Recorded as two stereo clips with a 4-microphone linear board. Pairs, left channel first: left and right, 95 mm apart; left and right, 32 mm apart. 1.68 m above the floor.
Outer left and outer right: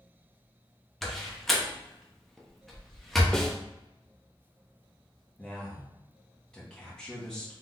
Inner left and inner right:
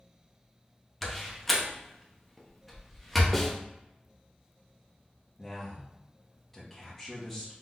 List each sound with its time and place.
1.0 s a door slam: centre (ahead or behind), 0.8 m
3.3 s a snare drum: 5° left (ahead or behind), 0.6 m
5.4 s a man speaking: 10° left (ahead or behind), 1.7 m